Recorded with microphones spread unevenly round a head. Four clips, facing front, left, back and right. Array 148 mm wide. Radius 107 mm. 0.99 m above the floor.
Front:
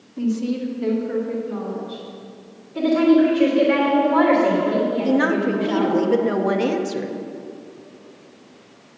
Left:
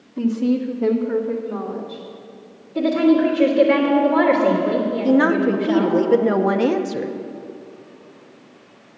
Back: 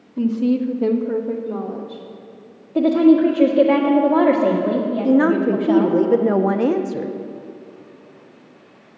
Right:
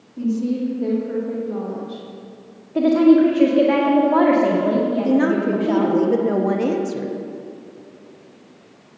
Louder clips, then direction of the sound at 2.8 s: Right 3 dB, back 2 dB; 150° right.